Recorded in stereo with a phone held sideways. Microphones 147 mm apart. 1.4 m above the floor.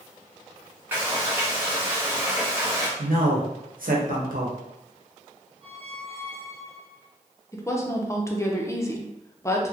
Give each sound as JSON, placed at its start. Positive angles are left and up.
{"t": 0.9, "sound": "frying", "side_deg": -15, "distance_m": 1.5}
{"t": 3.0, "sound": "a man speaking", "side_deg": -80, "distance_m": 0.9}
{"t": 5.6, "sound": "a squeak", "side_deg": -40, "distance_m": 0.6}
{"t": 7.5, "sound": "a woman speaking", "side_deg": 20, "distance_m": 0.5}